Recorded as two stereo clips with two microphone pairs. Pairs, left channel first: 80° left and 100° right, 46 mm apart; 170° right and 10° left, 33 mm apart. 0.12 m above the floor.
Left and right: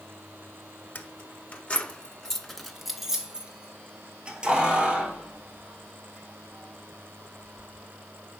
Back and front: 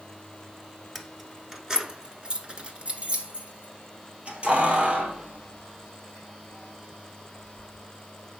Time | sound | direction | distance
0.9 | keys jangling | 100° left | 1.2 m